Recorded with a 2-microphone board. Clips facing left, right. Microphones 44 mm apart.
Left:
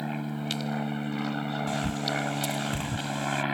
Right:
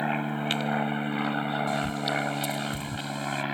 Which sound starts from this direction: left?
A bird, at 1.7 s.